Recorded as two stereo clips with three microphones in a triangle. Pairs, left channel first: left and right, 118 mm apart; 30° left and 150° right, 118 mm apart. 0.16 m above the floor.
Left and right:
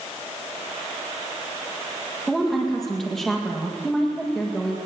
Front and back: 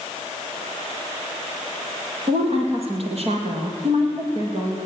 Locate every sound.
2.3 s a woman speaking: straight behind, 4.5 m; by 4.8 s 175° left, 6 m